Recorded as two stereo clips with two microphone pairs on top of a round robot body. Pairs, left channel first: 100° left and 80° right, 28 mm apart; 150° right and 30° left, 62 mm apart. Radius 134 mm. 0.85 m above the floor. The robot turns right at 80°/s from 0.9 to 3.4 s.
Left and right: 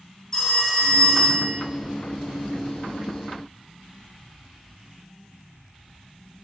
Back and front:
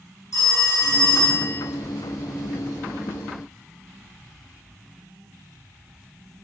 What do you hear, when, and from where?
0.3 s a phone ringing: 175° right, 3.5 m; by 1.6 s 120° right, 3.5 m